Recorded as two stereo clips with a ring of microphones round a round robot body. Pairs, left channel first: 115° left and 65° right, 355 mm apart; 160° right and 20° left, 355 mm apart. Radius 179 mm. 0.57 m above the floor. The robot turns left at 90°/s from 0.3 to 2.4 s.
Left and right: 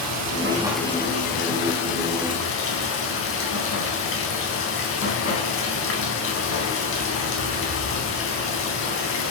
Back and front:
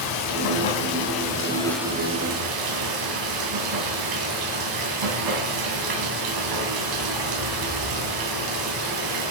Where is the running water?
115° right, 3.5 m; by 9.3 s 55° left, 3.5 m.